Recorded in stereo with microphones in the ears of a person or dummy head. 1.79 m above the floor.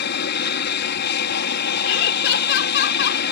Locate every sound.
0.0 s an aircraft: 55° left (ahead or behind)
1.8 s laughter: 65° left (ahead or behind)